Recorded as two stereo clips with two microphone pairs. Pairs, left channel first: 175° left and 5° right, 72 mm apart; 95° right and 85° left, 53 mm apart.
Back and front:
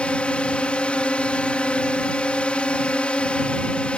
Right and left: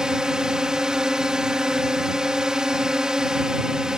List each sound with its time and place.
0.0 s a drone: 135° left